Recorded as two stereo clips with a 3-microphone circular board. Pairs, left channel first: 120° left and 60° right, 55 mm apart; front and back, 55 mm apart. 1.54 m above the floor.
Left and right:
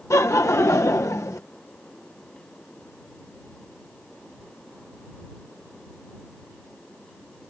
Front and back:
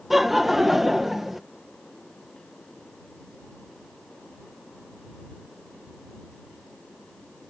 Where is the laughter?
95° left.